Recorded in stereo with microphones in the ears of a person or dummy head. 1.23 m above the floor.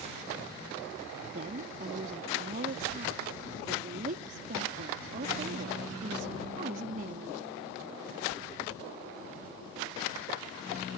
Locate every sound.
1.3 s a woman speaking: 45° right (ahead or behind)